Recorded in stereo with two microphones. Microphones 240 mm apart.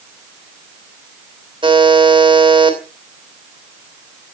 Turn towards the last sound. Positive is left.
turn(degrees=-20)  # may be behind; listen again after turning